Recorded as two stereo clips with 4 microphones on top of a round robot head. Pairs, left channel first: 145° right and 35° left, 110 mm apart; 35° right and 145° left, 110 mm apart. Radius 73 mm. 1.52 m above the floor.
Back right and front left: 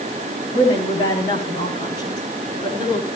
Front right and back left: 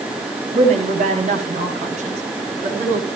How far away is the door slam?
I don't hear a door slam.